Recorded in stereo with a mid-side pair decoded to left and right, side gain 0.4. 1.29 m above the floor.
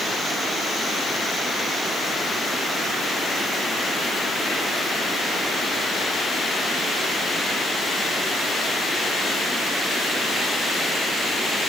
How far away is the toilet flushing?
No toilet flushing in this recording.